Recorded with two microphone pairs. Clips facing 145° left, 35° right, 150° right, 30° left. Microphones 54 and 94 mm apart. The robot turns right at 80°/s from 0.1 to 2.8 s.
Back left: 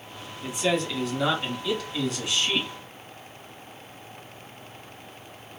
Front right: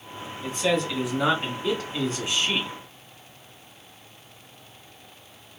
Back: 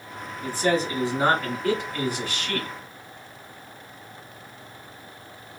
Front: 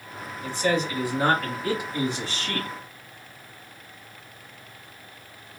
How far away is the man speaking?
About 1.3 m.